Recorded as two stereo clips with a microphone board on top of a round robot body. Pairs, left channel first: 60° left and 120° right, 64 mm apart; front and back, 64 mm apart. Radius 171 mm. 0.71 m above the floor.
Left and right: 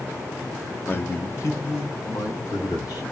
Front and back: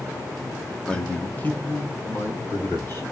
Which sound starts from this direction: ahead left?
A man speaking, at 0.9 s.